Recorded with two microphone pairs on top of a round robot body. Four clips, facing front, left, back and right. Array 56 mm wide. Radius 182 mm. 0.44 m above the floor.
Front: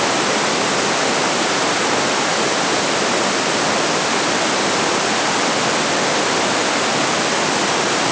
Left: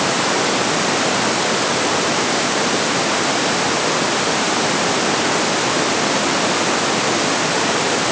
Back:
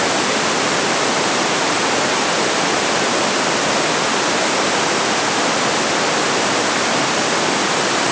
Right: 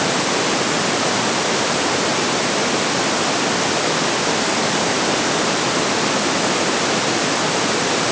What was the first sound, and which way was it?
Only background noise.